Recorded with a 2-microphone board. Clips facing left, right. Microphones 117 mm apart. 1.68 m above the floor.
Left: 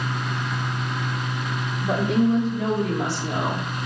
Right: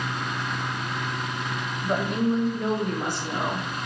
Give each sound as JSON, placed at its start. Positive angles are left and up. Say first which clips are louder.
{"t": 1.8, "sound": "a woman speaking", "louder": "left 4 dB", "side_deg": 85, "distance_m": 4.5}